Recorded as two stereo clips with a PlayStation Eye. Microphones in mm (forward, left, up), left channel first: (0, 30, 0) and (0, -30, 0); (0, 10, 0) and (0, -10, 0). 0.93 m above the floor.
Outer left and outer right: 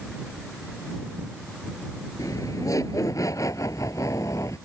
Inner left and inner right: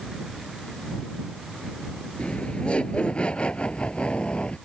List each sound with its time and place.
2.2 s laughter: 70° left (ahead or behind); by 4.6 s 60° left (ahead or behind)